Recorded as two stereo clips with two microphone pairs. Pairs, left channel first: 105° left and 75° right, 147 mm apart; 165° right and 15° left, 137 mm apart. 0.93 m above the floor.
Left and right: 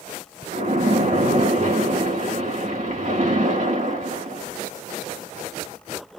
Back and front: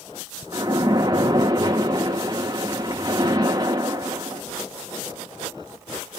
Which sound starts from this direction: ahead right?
A splash, at 0.5 s.